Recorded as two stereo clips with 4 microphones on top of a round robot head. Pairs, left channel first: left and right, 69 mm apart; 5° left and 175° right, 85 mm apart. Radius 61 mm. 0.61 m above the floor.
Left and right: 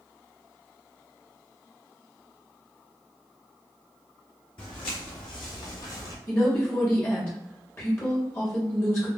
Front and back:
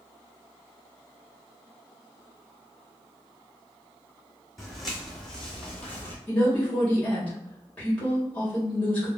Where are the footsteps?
95° left, 1.7 m; by 6.2 s 70° left, 0.8 m.